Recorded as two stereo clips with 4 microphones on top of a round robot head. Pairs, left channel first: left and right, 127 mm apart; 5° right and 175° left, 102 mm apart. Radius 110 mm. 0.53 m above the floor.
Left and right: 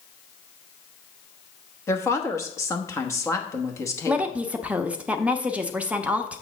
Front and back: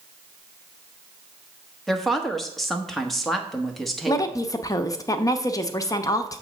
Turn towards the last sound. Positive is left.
turn(degrees=-20)